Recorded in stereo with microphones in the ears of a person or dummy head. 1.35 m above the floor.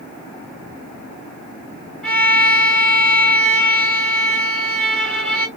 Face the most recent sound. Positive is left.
turn(degrees=-5)  # may be behind; listen again after turning